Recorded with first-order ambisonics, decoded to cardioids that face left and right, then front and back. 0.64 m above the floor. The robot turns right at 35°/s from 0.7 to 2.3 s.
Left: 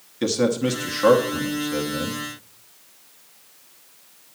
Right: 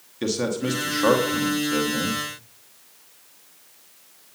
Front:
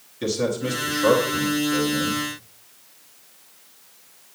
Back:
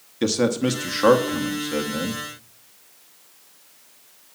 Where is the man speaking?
170° left, 1.0 m; by 2.2 s 140° right, 1.0 m.